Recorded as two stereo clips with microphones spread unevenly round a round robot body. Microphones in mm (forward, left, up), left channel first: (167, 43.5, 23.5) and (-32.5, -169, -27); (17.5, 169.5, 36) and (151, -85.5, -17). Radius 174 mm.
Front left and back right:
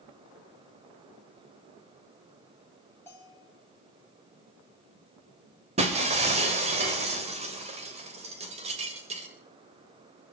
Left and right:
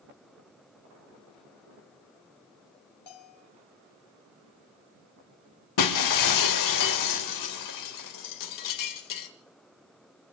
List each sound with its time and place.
3.1 s a bell: 130° left, 4 m
5.8 s breaking glass: 155° left, 2.5 m